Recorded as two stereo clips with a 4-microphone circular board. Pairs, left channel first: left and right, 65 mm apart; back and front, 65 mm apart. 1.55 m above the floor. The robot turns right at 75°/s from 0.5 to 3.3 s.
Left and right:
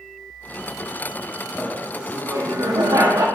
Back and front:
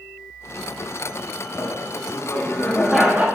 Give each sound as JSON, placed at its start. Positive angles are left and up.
{"t": 1.6, "sound": "laughter", "azimuth_deg": 170, "distance_m": 1.4}